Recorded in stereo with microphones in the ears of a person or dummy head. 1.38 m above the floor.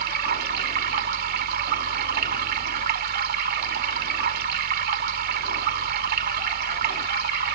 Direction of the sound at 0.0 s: 55° right (ahead or behind).